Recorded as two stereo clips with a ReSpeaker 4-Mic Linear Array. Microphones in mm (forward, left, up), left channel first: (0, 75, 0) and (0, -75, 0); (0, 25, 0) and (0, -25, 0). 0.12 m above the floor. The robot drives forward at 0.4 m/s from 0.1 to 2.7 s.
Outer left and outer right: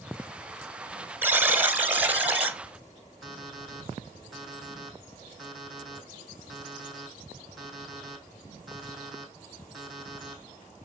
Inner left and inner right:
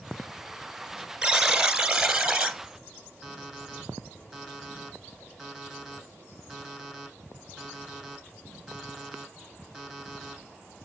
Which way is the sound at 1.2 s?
15° right (ahead or behind).